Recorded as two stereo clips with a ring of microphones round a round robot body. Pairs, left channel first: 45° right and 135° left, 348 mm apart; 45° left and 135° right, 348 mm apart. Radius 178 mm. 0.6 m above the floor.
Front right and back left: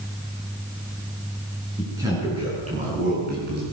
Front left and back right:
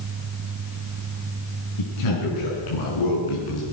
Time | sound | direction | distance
1.8 | a man speaking | 50° left | 8 m